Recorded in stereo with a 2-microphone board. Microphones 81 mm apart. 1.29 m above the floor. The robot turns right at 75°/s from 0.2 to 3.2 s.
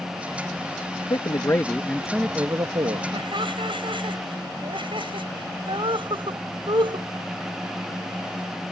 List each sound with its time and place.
1.1 s a man speaking: 110° left; by 3.0 s 105° right
3.1 s laughter: 85° right; by 7.1 s 90° right